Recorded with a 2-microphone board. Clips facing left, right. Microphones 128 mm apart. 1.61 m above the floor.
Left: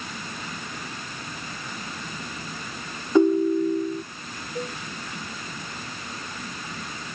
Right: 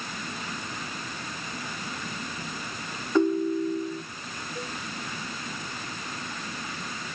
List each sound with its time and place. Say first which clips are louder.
3.1 s a ringtone: left 5 dB; 15° left (ahead or behind)
4.5 s a cowbell: left 6 dB; 25° left (ahead or behind)